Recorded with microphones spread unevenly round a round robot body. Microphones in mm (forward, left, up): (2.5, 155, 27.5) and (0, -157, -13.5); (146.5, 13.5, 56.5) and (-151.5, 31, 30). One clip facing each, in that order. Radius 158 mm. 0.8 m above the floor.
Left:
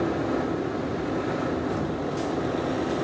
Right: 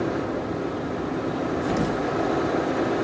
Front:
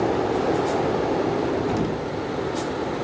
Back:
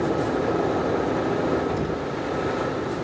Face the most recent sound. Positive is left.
turn(degrees=-65)